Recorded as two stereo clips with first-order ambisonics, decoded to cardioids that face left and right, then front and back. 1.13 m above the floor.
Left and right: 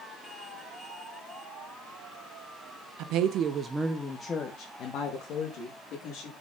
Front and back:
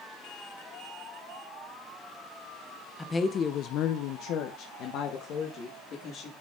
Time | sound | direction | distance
3.0 | a woman speaking | 80° right | 0.7 m